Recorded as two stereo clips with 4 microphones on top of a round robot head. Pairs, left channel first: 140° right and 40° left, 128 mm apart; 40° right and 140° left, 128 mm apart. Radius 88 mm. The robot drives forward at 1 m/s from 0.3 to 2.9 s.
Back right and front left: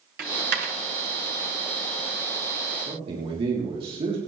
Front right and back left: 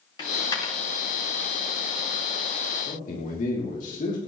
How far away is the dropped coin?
About 1.7 m.